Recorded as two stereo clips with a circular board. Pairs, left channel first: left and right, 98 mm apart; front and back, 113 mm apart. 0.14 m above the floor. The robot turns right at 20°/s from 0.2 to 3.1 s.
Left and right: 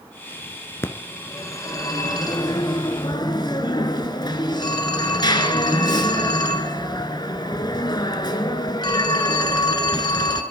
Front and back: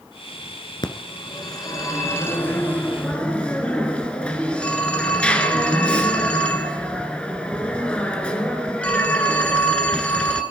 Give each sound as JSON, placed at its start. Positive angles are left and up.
{"t": 0.8, "sound": "a phone ringing", "azimuth_deg": 30, "distance_m": 1.5}